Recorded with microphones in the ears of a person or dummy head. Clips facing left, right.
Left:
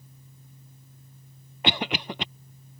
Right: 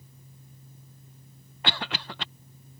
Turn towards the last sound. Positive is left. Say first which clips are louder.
# left 6 dB
turn(degrees=20)  # may be behind; listen again after turning